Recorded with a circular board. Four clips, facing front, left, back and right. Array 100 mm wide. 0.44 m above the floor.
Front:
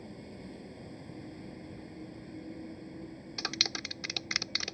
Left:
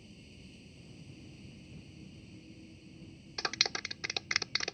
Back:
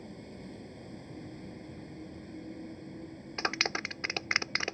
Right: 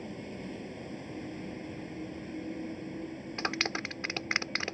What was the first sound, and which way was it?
A vehicle, 90° right.